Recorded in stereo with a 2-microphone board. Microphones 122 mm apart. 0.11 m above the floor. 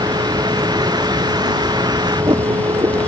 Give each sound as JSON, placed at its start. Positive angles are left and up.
{"t": 0.0, "sound": "a vehicle", "side_deg": -35}